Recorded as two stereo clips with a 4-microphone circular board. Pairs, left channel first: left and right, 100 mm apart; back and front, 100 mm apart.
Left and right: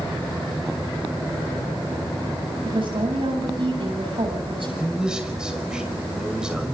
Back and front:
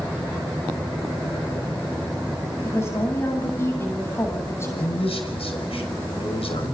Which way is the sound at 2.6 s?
120° right.